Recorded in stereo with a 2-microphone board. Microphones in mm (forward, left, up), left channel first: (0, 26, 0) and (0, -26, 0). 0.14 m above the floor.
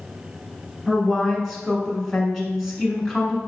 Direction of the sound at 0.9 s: 5° right (ahead or behind).